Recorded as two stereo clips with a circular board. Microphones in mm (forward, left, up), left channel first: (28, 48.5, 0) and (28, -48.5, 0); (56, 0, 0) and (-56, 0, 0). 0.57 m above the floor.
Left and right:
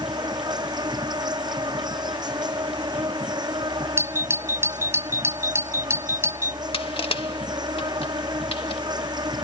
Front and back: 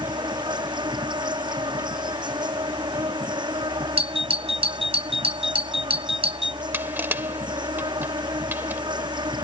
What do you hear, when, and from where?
0.0 s an insect: 135° right
4.0 s a doorbell: 155° right
6.7 s crushing: 110° left